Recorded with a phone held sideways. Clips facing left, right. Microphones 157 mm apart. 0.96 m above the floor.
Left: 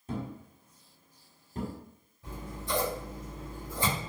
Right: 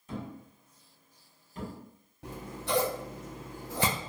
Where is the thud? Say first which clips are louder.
Left 3 dB; 35° left (ahead or behind), 1.0 m.